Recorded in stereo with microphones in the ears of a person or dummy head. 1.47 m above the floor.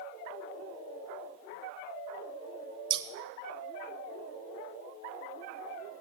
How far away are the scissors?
About 0.9 m.